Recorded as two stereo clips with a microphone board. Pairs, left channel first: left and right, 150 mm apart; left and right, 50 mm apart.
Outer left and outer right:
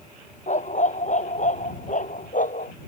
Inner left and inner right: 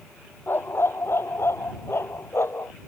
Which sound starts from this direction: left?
A dog barking, at 0.5 s.